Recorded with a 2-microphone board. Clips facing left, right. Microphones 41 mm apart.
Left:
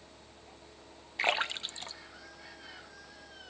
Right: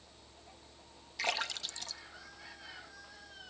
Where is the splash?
30° left (ahead or behind), 0.8 m.